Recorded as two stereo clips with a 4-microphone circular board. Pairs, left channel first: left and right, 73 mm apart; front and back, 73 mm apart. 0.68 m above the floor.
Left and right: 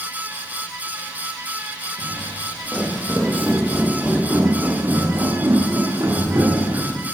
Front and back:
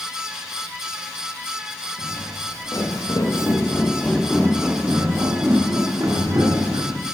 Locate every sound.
2.0 s footsteps: 15° left, 1.7 m; by 7.0 s 150° right, 2.0 m